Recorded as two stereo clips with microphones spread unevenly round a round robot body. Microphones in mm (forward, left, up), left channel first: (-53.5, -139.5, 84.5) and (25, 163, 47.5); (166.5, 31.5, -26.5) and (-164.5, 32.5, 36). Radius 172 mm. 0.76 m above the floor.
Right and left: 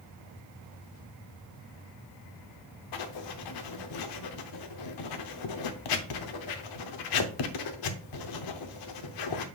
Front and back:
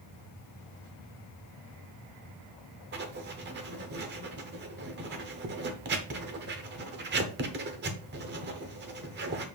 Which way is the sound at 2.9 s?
120° right.